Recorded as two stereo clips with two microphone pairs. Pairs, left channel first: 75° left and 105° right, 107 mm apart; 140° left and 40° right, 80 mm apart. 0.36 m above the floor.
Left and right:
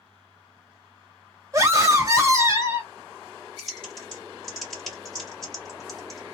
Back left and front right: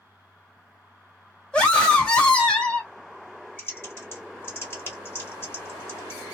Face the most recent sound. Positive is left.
turn(degrees=165)